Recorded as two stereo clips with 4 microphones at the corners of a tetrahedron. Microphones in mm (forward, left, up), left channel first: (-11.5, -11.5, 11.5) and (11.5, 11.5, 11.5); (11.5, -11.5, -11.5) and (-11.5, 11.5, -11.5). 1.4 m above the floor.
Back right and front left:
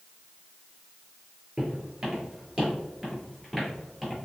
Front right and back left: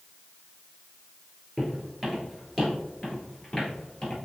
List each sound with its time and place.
1.6 s footsteps: 85° left, 1.5 m; by 4.2 s 60° right, 1.5 m